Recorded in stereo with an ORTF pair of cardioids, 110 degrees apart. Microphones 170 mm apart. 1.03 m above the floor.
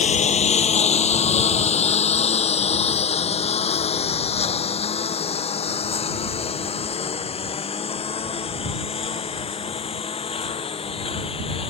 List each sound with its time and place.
0.0 s a lawn mower: 45° left; by 11.7 s 35° left